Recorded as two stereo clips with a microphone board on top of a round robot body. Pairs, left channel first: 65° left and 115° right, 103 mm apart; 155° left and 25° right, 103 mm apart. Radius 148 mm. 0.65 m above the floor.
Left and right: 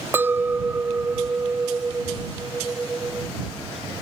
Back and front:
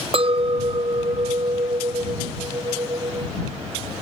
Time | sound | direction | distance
0.1 | a clink | 45° right | ?